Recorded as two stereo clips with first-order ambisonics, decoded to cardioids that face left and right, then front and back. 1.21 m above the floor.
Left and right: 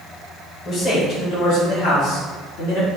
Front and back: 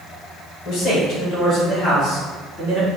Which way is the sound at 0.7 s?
35° left.